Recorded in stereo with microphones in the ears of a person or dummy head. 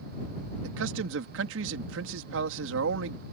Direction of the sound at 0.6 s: 80° right.